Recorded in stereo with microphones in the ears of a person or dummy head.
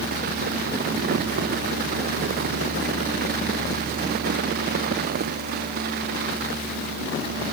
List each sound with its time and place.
Only background noise.